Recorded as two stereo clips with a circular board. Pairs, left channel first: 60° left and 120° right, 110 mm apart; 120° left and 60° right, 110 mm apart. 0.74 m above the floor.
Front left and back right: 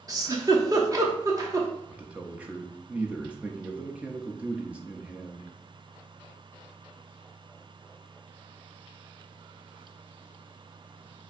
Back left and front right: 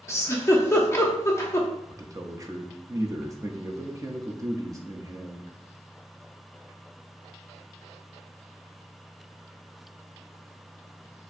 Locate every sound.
0.1 s a giggle: 175° right, 0.8 m
1.9 s a man speaking: 55° right, 0.6 m